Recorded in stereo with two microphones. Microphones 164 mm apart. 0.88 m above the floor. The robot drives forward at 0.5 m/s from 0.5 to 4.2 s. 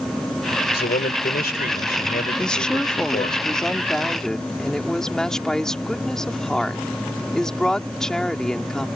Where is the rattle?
No rattle in this recording.